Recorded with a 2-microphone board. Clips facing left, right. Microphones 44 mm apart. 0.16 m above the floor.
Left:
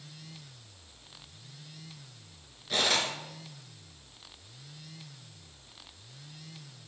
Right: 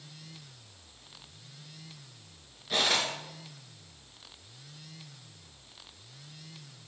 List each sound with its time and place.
2.7 s cutlery clinking: 5° right (ahead or behind), 1.4 m